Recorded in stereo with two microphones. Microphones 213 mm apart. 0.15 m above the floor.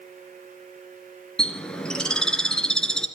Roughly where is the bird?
Centre.